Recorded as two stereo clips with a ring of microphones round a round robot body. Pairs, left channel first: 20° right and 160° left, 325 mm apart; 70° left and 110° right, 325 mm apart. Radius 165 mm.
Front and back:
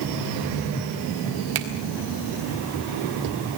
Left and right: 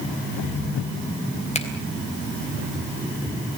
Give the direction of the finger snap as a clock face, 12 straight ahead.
7 o'clock.